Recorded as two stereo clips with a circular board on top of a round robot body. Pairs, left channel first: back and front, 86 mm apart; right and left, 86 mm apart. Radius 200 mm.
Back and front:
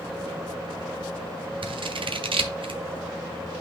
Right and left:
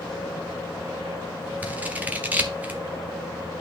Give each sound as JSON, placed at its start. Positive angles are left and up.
{"t": 1.6, "sound": "scissors", "azimuth_deg": 20, "distance_m": 1.3}